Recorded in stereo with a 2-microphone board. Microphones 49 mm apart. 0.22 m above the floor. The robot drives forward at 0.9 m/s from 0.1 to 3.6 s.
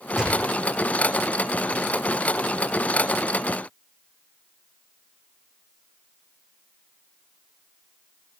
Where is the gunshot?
10° right (ahead or behind), 7.5 m.